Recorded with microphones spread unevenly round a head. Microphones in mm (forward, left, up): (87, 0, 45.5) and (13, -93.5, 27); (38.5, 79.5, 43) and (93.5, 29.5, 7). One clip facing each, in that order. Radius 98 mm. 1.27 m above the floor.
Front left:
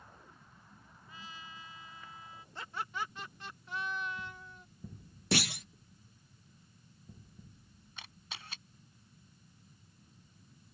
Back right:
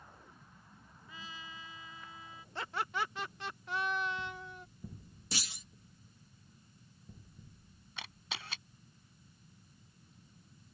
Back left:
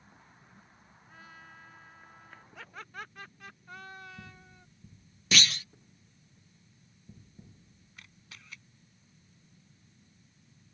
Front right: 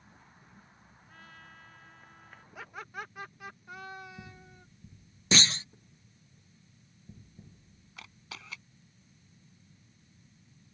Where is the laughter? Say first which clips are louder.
Back right 3 dB, front right 3 dB; 120° right.